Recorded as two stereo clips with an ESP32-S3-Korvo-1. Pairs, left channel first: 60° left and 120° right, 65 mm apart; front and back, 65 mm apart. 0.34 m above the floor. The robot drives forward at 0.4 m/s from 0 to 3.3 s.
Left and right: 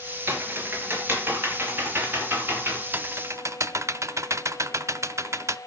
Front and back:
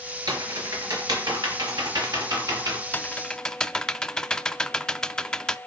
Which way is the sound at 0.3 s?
175° right.